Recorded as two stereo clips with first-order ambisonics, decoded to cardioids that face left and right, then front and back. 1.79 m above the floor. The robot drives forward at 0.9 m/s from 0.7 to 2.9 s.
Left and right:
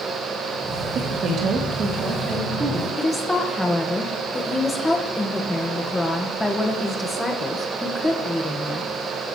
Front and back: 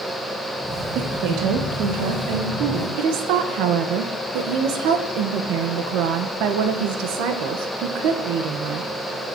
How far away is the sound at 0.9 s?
About 2 m.